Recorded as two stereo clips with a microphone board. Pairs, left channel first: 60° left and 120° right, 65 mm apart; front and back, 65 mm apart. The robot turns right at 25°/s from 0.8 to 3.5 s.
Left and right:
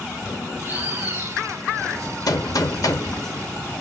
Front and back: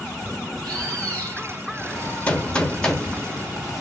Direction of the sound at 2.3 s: 65° left.